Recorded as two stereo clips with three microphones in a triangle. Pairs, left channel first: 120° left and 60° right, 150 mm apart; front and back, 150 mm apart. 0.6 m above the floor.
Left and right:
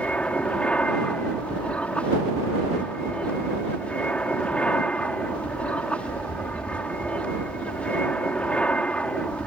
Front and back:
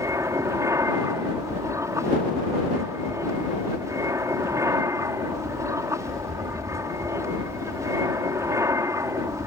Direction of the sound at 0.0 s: 175° right.